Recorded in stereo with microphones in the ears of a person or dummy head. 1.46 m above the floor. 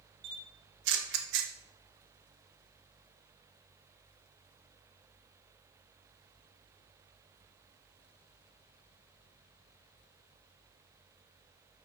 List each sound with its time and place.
0.2 s a camera shutter: 65° right (ahead or behind), 0.7 m